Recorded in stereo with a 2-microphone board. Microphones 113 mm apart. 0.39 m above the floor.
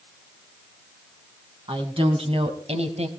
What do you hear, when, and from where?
1.7 s a woman speaking: 50° right (ahead or behind), 3 m; by 3.1 s 65° right (ahead or behind), 2.5 m